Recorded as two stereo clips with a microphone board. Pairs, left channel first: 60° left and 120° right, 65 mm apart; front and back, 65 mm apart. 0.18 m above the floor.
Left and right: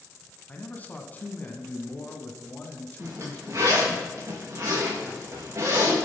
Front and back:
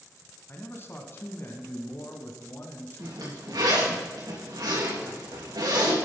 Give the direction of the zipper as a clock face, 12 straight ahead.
6 o'clock.